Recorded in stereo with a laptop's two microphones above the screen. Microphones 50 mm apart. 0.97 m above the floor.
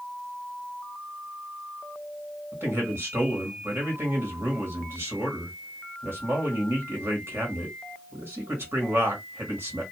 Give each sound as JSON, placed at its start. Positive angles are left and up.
{"t": 2.5, "sound": "a man speaking", "side_deg": -50, "distance_m": 2.0}